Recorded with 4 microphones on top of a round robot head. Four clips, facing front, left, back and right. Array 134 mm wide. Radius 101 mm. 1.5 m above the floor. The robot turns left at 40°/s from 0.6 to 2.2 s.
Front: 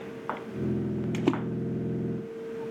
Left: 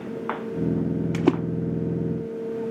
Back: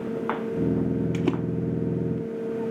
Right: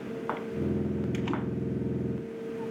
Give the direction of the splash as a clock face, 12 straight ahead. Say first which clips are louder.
Left 10 dB, front 3 dB; 9 o'clock.